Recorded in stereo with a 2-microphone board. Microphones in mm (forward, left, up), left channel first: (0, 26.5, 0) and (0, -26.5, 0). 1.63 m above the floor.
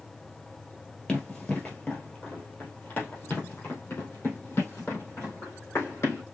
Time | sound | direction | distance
1.1 | running footsteps | 25° left (ahead or behind) | 2 m